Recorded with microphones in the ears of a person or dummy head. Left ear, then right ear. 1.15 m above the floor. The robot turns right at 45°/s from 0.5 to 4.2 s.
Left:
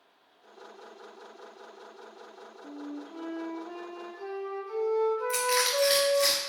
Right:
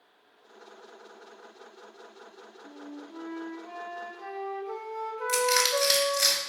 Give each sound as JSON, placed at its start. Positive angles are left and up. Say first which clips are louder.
{"t": 2.6, "sound": "a flute", "louder": "left 4 dB", "azimuth_deg": 145, "distance_m": 1.0}
{"t": 5.3, "sound": "crushing", "louder": "right 2 dB", "side_deg": -60, "distance_m": 3.5}